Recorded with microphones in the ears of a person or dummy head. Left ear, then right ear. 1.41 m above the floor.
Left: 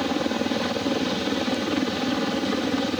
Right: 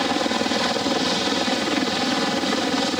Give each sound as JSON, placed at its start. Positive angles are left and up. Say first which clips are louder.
{"t": 0.0, "sound": "a helicopter", "louder": "right 4 dB", "side_deg": -35}